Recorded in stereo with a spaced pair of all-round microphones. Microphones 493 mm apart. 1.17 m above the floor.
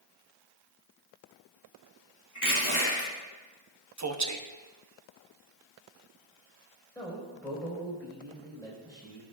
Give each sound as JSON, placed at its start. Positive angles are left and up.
{"t": 2.4, "sound": "crushing", "side_deg": 35, "distance_m": 2.5}
{"t": 4.0, "sound": "a man speaking", "side_deg": -35, "distance_m": 0.7}
{"t": 7.0, "sound": "a man speaking", "side_deg": 5, "distance_m": 4.0}